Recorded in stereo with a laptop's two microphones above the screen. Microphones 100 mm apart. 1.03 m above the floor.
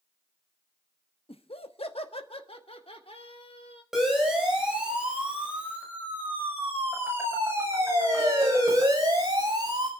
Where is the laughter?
70° left (ahead or behind), 1.2 m.